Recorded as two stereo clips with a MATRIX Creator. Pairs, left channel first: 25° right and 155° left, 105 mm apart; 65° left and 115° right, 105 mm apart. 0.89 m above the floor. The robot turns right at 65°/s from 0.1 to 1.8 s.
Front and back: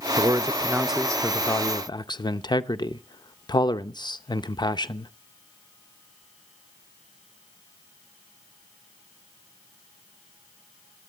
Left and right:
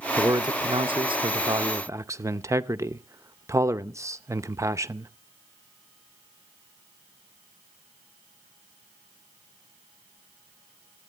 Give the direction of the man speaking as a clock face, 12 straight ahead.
5 o'clock.